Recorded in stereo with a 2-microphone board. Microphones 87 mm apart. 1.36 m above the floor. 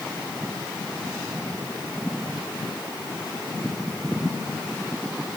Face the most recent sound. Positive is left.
No sound to turn to.